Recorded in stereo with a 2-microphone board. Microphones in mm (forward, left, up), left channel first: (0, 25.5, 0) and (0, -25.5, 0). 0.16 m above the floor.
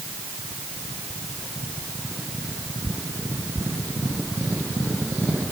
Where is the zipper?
No zipper in this recording.